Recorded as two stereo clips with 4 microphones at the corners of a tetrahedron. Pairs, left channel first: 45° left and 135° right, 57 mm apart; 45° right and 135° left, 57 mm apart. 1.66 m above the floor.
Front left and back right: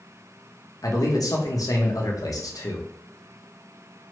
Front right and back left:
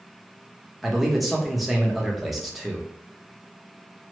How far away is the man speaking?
About 0.7 m.